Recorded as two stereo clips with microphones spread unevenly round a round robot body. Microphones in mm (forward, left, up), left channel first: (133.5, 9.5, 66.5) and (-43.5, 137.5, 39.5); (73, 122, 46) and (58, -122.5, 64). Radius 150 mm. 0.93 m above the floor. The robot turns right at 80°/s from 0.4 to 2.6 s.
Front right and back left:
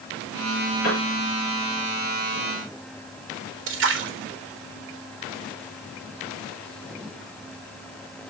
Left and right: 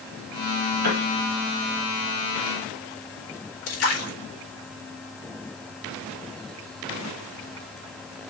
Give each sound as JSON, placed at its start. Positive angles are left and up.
{"t": 0.8, "sound": "a piano", "azimuth_deg": -85, "distance_m": 5.0}
{"t": 3.7, "sound": "a splash", "azimuth_deg": 120, "distance_m": 4.5}